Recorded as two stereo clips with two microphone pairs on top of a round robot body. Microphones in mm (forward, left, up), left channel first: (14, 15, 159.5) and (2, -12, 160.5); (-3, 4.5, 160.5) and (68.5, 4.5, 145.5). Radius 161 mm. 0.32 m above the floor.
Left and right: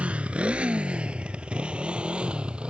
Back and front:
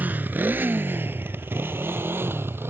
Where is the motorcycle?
65° right; by 2.7 s 60° right.